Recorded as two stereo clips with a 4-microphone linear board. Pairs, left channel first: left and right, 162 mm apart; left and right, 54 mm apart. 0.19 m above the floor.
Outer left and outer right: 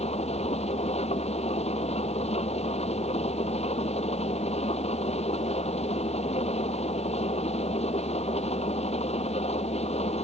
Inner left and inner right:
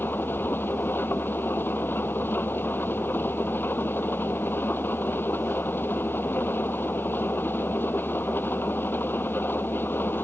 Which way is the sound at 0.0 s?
40° left (ahead or behind).